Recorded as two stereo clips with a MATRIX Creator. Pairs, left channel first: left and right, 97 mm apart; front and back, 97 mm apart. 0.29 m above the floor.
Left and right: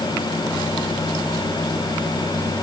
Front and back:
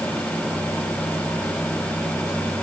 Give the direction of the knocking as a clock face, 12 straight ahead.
I don't hear knocking.